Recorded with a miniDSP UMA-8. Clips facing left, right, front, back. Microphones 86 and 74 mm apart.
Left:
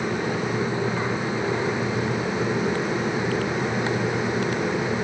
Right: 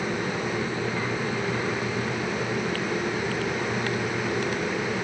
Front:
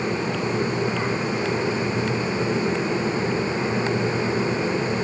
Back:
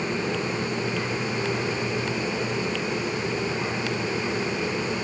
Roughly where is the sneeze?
I don't hear a sneeze.